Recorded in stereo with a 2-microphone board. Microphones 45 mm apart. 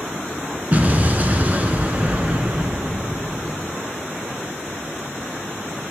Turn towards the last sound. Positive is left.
turn(degrees=-35)  # may be behind; listen again after turning